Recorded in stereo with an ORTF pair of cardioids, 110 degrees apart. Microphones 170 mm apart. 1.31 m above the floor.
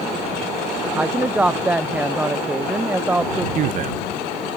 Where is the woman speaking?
10° right.